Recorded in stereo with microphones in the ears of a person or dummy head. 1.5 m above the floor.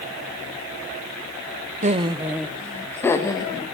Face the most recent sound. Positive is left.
turn(degrees=20)  # may be behind; listen again after turning